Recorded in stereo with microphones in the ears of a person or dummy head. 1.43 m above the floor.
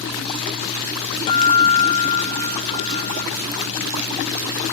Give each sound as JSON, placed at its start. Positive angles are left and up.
{"t": 1.3, "sound": "a guitar", "side_deg": 35, "distance_m": 0.5}